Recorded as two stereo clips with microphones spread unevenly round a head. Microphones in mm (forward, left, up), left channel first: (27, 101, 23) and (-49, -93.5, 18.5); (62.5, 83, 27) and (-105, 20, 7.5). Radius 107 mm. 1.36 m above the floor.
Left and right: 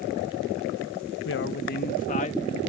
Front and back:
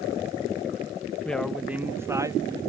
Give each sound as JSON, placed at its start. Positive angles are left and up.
{"t": 1.2, "sound": "a woman speaking", "azimuth_deg": 105}